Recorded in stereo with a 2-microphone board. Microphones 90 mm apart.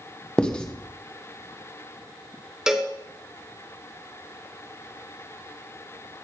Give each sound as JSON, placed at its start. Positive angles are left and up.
{"t": 0.4, "sound": "writing", "side_deg": 10, "distance_m": 1.0}
{"t": 2.7, "sound": "a cowbell", "side_deg": -10, "distance_m": 1.2}